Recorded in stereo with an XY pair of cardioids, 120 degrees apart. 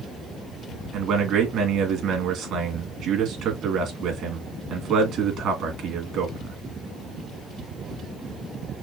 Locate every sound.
0.9 s a man speaking: 65° right, 2.5 m